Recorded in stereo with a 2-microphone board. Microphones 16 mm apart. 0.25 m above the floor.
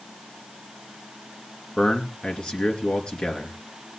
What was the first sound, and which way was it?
A man speaking, 65° left (ahead or behind).